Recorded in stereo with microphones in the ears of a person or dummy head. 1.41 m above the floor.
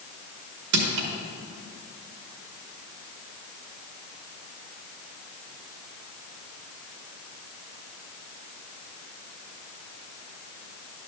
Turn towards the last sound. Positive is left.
turn(degrees=-80)